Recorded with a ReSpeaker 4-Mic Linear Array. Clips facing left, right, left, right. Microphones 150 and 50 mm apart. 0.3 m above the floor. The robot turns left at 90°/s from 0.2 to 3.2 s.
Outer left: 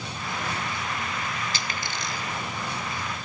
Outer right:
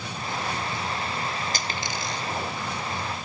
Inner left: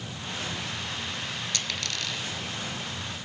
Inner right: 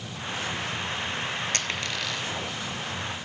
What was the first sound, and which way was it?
A dropped coin, 50° right (ahead or behind).